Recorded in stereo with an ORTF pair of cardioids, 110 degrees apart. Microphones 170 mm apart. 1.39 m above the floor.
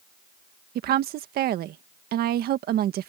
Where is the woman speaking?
65° right.